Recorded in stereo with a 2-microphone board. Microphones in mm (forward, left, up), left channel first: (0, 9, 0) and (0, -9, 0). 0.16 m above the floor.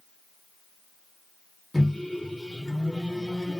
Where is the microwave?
5° left (ahead or behind), 1.2 m.